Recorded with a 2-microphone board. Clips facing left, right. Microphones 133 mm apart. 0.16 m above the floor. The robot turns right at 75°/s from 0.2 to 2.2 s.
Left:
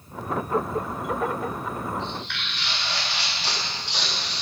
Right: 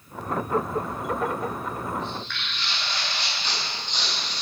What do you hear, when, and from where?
2.0 s footsteps: 85° left, 6 m; by 4.4 s 80° left, 5 m